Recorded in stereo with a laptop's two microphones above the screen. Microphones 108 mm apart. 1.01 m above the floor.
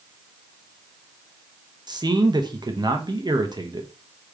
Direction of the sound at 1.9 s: 40° right (ahead or behind).